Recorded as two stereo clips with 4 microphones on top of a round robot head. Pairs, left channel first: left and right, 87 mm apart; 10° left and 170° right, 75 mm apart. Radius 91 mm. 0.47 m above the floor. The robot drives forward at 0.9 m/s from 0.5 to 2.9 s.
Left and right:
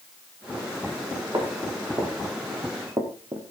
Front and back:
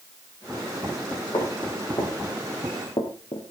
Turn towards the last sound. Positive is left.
turn(degrees=-35)